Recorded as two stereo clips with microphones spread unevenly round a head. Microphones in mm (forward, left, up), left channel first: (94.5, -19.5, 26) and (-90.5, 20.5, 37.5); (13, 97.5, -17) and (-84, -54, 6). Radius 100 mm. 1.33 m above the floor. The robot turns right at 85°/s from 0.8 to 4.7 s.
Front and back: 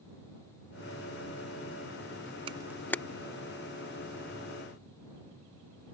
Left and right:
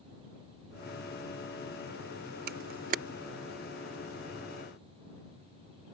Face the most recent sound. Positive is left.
turn(degrees=55)